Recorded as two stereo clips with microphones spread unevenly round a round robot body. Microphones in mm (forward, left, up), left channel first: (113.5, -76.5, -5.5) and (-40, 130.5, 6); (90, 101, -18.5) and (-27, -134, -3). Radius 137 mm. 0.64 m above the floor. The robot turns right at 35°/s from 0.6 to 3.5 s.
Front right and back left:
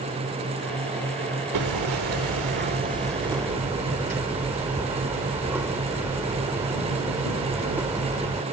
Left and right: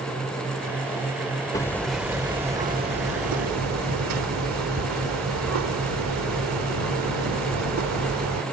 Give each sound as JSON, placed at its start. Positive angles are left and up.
{"t": 1.5, "sound": "hammering", "azimuth_deg": 140}